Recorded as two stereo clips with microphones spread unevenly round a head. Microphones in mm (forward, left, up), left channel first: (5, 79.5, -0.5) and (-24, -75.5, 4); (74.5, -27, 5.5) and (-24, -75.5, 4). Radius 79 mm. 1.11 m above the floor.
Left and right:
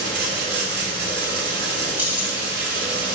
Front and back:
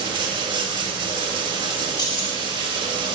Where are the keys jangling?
20° right, 2 m.